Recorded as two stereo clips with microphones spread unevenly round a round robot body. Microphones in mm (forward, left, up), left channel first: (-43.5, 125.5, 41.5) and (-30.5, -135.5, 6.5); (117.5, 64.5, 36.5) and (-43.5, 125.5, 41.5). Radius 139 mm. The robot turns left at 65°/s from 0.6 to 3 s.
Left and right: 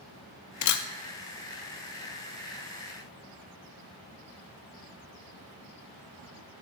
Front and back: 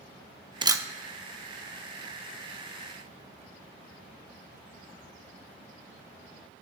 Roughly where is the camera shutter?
Left.